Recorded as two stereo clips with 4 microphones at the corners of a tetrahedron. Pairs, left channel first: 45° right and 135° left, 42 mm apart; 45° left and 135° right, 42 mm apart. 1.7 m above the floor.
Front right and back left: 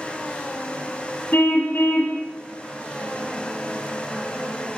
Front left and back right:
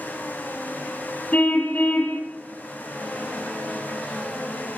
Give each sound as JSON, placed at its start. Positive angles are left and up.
{"t": 1.3, "sound": "a car horn", "azimuth_deg": -5, "distance_m": 6.5}